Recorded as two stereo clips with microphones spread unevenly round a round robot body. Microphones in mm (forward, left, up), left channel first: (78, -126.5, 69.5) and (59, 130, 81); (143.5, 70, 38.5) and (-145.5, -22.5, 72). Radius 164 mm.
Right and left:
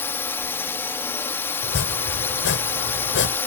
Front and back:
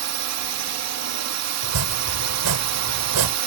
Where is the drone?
165° right.